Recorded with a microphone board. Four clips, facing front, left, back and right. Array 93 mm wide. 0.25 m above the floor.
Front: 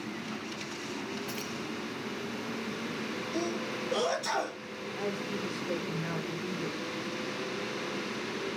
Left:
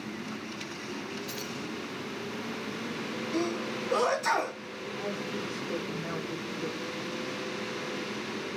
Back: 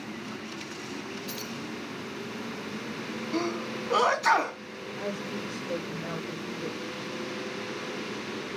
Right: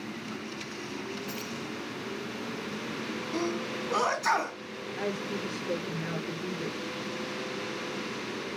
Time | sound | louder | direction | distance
1.3 | keys jangling | right 1 dB, even | 35° right | 1.1 m
3.3 | a sneeze | left 1 dB, back 4 dB | 170° right | 2.5 m
5.0 | a woman speaking | right 2 dB, even | 75° right | 5 m